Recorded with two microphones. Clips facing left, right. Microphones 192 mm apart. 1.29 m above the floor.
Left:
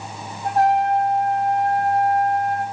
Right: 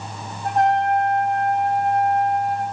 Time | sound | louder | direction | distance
0.4 | a trumpet | left 1 dB | 5° left (ahead or behind) | 8.5 m